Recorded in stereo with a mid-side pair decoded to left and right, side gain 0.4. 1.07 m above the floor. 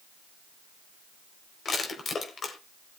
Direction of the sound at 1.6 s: 50° left.